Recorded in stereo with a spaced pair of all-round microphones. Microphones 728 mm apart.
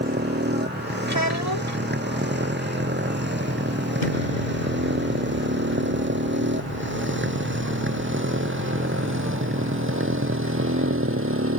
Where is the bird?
No bird in this recording.